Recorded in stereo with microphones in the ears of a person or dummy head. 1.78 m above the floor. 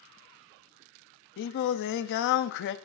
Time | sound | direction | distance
1.4 | singing | 60° left (ahead or behind) | 0.5 m